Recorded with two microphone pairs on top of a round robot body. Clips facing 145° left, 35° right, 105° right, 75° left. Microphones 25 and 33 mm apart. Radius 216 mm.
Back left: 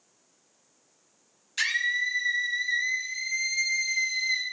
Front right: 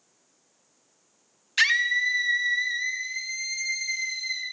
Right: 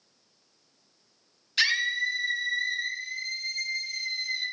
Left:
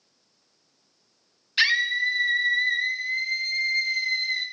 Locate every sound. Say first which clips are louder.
1.6 s a scream: front right 4 dB, left 4 dB; 5° left, 2 m; by 4.4 s 60° left, 3.5 m